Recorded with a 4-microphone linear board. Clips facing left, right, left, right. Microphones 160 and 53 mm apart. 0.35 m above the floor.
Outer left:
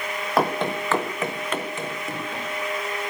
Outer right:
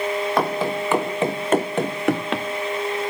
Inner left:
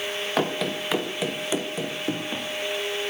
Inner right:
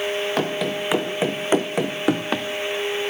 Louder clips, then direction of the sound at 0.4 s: Outer left 3 dB, inner right 2 dB; centre (ahead or behind).